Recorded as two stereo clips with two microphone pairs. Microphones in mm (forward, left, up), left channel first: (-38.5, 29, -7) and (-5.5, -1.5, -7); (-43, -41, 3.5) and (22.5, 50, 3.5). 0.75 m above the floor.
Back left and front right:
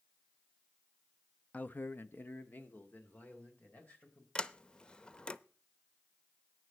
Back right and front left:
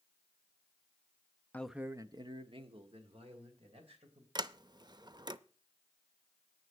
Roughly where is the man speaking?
Behind.